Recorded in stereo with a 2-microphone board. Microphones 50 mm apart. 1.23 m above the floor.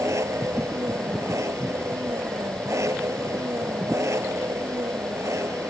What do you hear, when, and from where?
0.0 s an engine running: 90° right